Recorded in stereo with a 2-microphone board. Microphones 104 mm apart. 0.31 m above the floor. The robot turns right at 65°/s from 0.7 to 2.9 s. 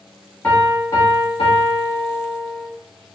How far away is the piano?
About 1.1 m.